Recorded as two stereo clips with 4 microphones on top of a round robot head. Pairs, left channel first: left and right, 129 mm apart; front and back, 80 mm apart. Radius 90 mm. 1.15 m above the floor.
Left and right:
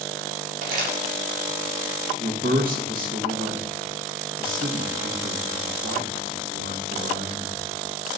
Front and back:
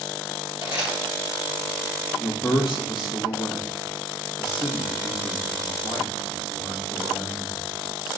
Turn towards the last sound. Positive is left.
turn(degrees=-95)